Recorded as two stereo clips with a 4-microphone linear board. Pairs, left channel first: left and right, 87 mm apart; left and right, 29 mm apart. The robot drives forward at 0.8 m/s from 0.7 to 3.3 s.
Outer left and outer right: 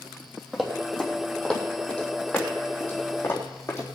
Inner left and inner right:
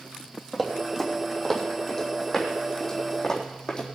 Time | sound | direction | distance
0.5 | running footsteps | centre (ahead or behind) | 3 m